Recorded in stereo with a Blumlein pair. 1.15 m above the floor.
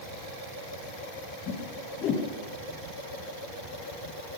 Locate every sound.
1.5 s a whoosh: 35° left, 4 m